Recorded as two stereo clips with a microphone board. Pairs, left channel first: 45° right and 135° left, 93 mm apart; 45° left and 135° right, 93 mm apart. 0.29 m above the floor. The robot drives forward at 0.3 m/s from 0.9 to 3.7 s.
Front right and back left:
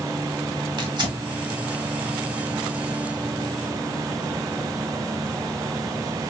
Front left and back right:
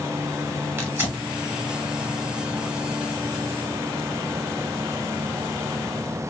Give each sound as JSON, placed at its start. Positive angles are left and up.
{"t": 0.8, "sound": "tearing paper", "azimuth_deg": 160, "distance_m": 1.1}